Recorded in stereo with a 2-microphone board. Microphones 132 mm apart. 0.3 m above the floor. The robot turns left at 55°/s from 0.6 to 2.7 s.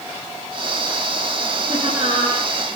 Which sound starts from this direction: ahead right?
Laughter, at 1.7 s.